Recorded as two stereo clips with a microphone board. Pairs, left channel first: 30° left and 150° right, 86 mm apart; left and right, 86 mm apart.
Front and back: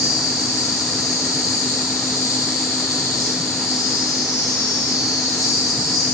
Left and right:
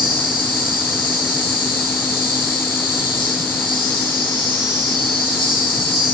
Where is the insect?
80° left, 5.5 m.